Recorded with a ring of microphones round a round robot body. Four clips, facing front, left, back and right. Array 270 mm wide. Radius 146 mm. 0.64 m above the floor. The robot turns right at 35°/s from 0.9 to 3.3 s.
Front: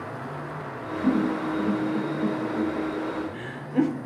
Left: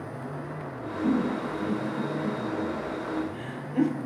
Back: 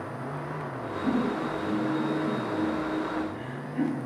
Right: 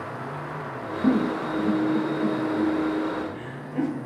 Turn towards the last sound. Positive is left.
turn(degrees=5)